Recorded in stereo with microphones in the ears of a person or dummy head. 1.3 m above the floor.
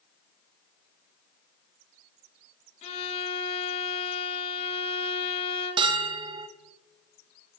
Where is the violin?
35° left (ahead or behind), 1.5 m.